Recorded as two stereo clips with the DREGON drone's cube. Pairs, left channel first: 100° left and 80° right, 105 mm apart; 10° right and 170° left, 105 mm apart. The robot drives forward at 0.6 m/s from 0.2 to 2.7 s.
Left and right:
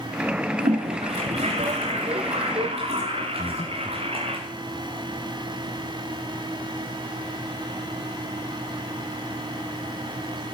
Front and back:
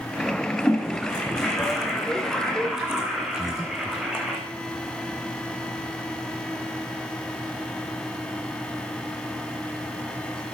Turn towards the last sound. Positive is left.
turn(degrees=105)